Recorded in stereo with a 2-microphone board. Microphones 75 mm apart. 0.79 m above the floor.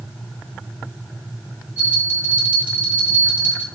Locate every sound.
1.8 s a bell: 20° right (ahead or behind), 4.5 m